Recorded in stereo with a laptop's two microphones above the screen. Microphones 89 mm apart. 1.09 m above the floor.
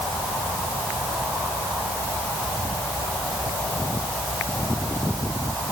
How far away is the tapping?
No tapping in this recording.